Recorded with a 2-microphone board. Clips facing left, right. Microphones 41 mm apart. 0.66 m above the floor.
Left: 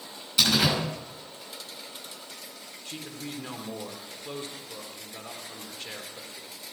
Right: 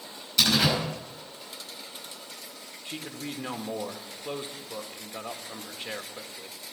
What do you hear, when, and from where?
0.4 s a door slam: 5° left (ahead or behind), 5 m
2.9 s a man speaking: 20° right (ahead or behind), 1.5 m